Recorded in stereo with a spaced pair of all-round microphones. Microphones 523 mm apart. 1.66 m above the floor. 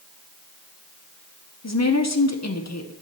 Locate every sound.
1.6 s a woman speaking: 30° left (ahead or behind), 0.8 m